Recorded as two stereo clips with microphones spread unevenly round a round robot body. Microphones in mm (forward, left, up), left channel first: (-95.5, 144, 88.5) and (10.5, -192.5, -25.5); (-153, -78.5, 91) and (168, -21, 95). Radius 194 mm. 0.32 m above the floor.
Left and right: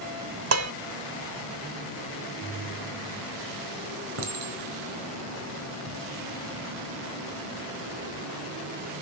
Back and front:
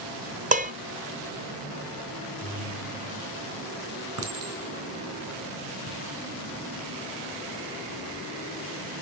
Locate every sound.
0.5 s dishes clattering: 55° right, 0.9 m
2.4 s a ringtone: 30° right, 3 m
4.2 s a clink: 20° right, 3.5 m